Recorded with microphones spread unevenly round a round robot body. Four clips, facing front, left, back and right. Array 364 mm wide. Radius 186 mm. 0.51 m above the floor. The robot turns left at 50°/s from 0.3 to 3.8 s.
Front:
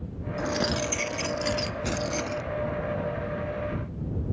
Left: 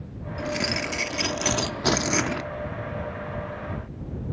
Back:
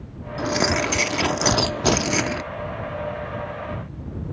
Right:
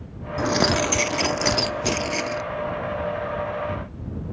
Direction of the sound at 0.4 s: 125° right.